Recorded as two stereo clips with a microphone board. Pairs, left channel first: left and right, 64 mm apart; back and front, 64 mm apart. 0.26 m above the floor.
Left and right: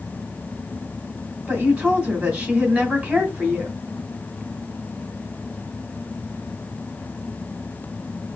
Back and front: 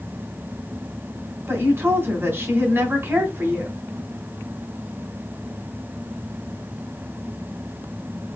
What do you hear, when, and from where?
1.5 s a woman speaking: 30° right, 2 m